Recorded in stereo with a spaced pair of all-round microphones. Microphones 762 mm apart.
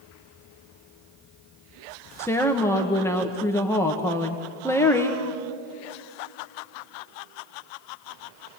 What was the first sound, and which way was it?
A woman speaking, 5° left (ahead or behind).